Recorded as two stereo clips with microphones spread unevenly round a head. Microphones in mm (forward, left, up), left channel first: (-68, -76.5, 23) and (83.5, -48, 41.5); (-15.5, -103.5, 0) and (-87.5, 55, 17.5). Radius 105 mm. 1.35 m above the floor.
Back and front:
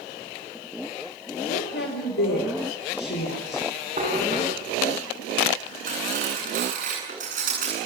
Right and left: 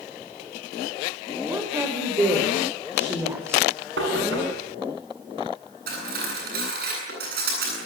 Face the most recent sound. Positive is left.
turn(degrees=65)